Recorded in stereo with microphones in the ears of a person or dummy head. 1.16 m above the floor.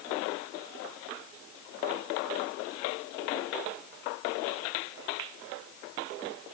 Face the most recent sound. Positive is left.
No sound to turn to.